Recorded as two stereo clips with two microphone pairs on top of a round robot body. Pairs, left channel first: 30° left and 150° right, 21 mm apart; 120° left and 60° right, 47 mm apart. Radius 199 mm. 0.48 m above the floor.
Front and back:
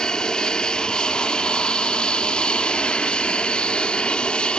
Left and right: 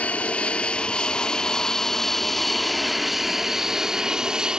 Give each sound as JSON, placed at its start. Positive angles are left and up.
{"t": 0.0, "sound": "an aircraft", "azimuth_deg": 70}